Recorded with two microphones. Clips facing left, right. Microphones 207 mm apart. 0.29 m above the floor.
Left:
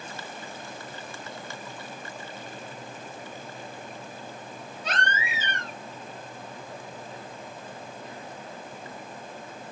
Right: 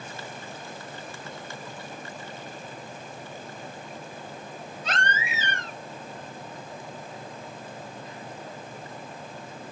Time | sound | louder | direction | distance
4.8 | a baby crying | even | 55° right (ahead or behind) | 4 m